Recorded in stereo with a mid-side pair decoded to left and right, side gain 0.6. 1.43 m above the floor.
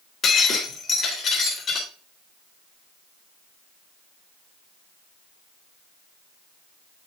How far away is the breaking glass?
About 3 m.